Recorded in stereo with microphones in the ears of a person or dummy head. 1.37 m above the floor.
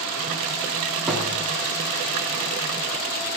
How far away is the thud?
About 2.5 m.